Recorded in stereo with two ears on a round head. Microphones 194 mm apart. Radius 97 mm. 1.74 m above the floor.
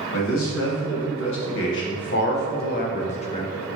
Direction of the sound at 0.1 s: 75° left (ahead or behind).